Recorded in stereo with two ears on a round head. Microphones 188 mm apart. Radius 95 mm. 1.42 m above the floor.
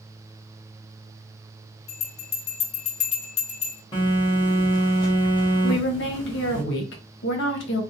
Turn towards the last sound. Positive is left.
turn(degrees=60)  # may be behind; listen again after turning